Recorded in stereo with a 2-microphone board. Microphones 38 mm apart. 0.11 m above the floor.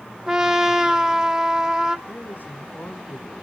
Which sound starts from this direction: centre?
A trumpet, at 0.3 s.